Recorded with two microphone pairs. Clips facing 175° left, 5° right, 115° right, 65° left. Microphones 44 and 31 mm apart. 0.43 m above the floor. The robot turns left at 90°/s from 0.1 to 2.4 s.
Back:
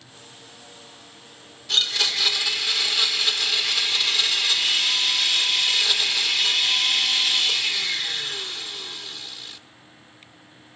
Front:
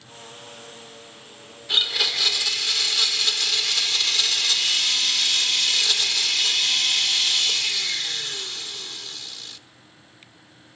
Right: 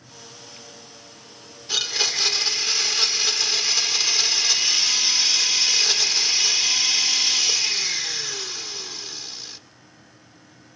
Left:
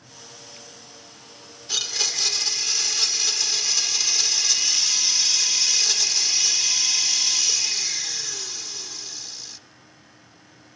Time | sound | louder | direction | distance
1.7 | a blender | even, right 3 dB | 45° right | 0.9 m